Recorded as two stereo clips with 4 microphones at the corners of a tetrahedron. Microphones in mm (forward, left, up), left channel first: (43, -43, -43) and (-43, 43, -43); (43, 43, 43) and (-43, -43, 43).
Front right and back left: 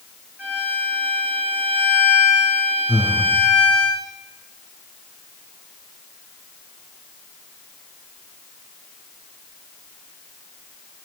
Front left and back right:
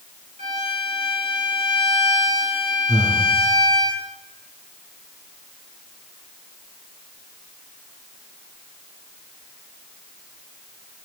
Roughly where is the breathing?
Behind.